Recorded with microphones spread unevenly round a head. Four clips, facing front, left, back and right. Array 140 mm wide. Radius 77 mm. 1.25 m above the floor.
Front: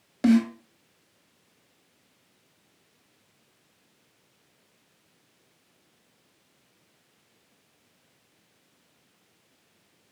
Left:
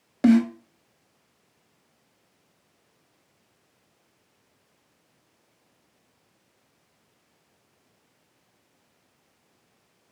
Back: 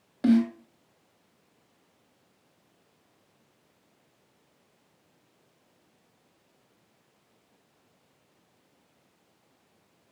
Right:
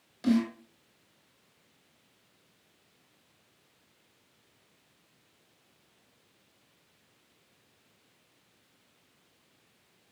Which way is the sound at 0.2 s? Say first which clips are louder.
Left 8 dB, front 1 dB; 60° left.